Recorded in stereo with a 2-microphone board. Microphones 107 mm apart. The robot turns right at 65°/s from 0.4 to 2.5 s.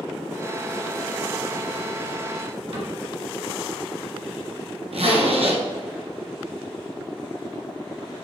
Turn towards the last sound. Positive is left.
turn(degrees=-65)  # may be behind; listen again after turning